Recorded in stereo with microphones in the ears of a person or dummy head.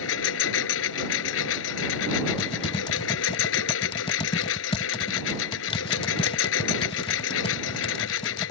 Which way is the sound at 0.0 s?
80° left.